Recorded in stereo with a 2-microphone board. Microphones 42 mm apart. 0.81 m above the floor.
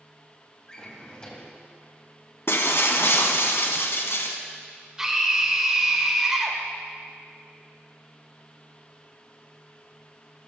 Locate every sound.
0.7 s a drawer: 20° left (ahead or behind), 2.5 m
2.5 s breaking glass: 70° left (ahead or behind), 1.5 m
5.0 s a scream: 15° right (ahead or behind), 2.5 m